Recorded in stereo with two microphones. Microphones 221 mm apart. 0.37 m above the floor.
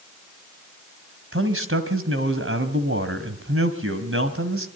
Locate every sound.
1.3 s a man speaking: 65° right (ahead or behind), 2 m